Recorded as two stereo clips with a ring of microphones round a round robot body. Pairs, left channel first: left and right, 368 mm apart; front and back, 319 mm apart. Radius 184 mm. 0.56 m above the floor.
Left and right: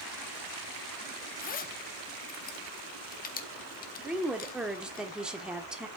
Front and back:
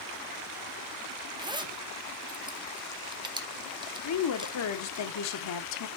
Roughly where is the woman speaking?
Ahead.